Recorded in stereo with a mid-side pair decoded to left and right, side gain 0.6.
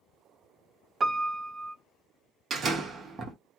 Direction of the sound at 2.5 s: 40° right.